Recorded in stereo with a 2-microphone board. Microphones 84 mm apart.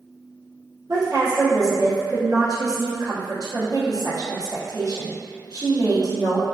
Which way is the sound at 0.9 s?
45° right (ahead or behind).